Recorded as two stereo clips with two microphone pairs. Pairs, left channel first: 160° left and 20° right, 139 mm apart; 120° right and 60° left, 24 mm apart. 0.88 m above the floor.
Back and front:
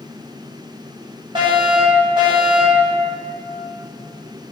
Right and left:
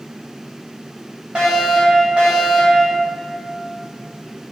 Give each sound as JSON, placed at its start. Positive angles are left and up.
{"t": 1.4, "sound": "a fire alarm", "azimuth_deg": 25, "distance_m": 4.0}